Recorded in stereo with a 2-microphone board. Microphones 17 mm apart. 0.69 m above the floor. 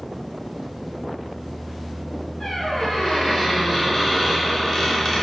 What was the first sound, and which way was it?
A squeak, 30° left (ahead or behind).